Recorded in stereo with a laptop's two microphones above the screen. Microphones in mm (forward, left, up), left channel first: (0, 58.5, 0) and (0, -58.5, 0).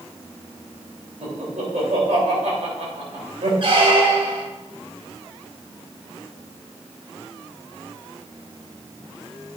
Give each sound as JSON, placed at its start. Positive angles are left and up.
{"t": 1.2, "sound": "laughter", "side_deg": -85, "distance_m": 3.0}
{"t": 3.6, "sound": "a squeak", "side_deg": -50, "distance_m": 1.1}